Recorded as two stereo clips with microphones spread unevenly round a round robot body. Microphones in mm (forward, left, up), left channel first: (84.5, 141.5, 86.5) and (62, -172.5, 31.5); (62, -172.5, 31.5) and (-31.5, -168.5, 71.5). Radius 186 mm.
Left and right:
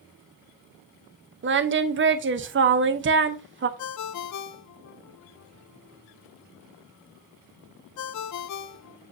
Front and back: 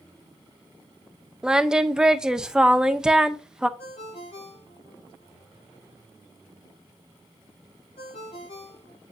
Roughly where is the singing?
Right.